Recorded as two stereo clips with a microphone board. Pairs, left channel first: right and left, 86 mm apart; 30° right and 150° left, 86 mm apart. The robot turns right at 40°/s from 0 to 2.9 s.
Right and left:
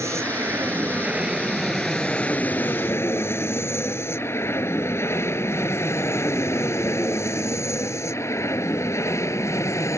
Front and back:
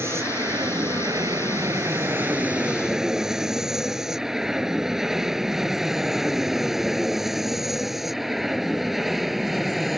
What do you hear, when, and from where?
0.0 s an aircraft: 110° left; by 10.0 s 120° right